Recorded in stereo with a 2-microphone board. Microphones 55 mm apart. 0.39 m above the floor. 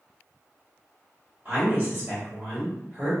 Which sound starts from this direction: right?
A woman speaking, at 1.4 s.